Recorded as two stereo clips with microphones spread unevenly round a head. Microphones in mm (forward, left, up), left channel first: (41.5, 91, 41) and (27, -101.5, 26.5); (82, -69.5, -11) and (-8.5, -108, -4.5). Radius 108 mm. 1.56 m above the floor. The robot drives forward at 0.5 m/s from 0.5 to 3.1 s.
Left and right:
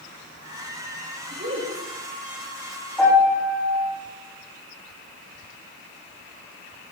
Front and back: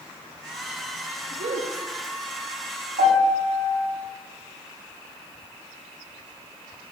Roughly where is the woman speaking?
Behind right.